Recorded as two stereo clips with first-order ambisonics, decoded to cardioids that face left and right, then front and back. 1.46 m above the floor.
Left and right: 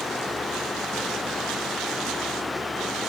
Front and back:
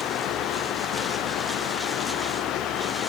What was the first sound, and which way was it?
Only background noise.